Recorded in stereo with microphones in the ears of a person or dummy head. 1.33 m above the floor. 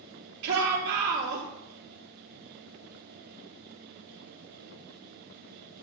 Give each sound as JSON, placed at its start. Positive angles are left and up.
{"t": 0.4, "sound": "a shout", "side_deg": -65, "distance_m": 3.0}